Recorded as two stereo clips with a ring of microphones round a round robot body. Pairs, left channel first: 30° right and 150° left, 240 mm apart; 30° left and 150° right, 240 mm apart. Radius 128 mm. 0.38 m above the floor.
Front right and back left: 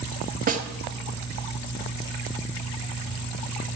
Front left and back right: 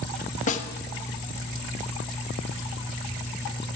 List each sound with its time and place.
0.5 s a snare drum: 90° left, 0.8 m